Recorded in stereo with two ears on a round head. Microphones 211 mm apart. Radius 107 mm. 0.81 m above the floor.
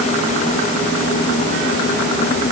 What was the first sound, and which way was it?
Only background noise.